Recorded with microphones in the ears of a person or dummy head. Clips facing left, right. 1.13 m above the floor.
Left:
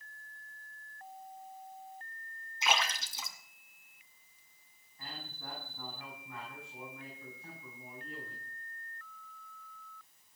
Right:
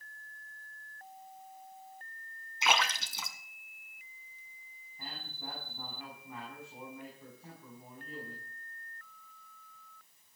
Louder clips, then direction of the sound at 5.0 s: Right 1 dB; 10° right (ahead or behind).